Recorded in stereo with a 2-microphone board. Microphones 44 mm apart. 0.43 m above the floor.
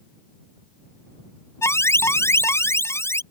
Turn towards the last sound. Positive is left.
turn(degrees=80)